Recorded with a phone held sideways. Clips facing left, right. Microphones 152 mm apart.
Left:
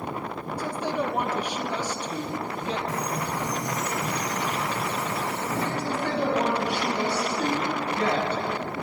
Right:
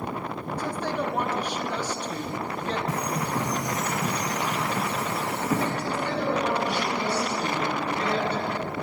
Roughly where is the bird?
Right.